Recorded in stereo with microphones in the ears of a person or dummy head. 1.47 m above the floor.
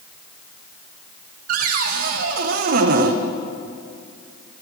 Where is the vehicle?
No vehicle in this recording.